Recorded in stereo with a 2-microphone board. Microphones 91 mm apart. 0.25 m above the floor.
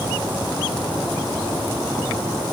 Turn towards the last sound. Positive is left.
No sound to turn to.